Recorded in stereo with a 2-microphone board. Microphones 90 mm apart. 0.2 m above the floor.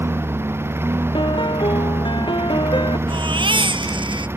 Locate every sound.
0.0 s a lawn mower: 25° right (ahead or behind)
1.1 s a piano: 65° left (ahead or behind)
3.1 s a baby crying: 70° right (ahead or behind)